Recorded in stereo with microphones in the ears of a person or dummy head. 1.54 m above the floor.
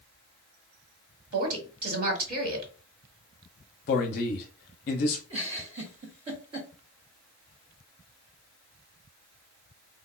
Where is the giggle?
30° right (ahead or behind), 0.9 m.